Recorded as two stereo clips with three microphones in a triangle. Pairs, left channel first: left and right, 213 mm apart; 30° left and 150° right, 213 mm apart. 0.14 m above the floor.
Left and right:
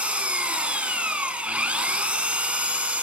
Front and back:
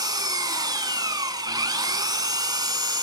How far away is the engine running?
About 0.7 m.